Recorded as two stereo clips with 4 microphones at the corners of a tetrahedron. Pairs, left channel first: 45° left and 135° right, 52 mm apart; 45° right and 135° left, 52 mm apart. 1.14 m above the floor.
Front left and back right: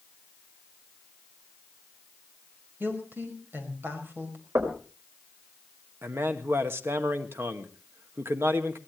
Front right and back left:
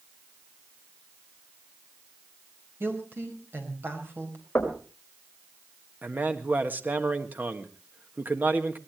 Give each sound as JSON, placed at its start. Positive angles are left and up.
{"t": 2.8, "sound": "a woman speaking", "azimuth_deg": 175, "distance_m": 5.5}
{"t": 4.5, "sound": "knocking", "azimuth_deg": -105, "distance_m": 4.5}
{"t": 6.0, "sound": "a man speaking", "azimuth_deg": -170, "distance_m": 1.6}